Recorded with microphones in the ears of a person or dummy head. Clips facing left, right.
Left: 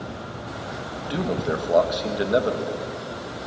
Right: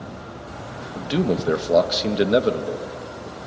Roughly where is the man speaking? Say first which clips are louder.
Right 5 dB; right.